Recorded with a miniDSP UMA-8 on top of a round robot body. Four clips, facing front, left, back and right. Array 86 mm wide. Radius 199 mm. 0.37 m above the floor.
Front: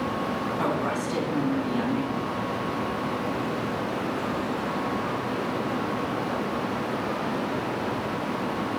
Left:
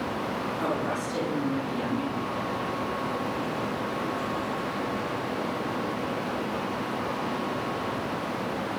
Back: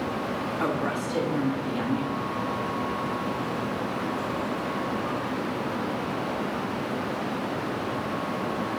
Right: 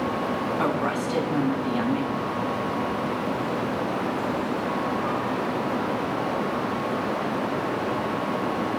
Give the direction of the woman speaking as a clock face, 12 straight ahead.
3 o'clock.